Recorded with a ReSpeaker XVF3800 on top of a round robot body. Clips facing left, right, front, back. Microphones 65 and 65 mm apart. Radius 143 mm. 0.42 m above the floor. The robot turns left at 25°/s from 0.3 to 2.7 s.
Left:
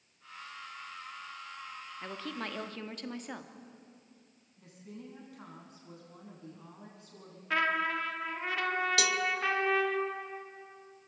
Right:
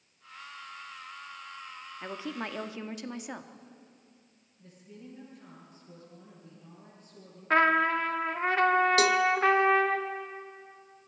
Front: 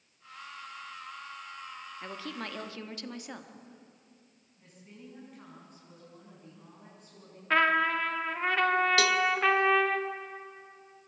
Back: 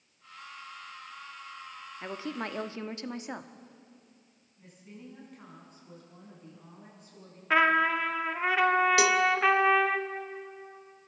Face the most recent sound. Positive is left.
turn(degrees=-115)